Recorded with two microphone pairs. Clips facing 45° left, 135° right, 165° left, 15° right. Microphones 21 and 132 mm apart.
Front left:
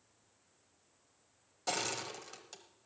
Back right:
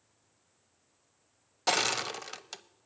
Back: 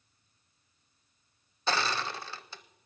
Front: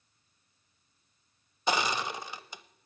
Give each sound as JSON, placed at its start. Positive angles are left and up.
{"t": 1.7, "sound": "crushing", "azimuth_deg": -90, "distance_m": 0.5}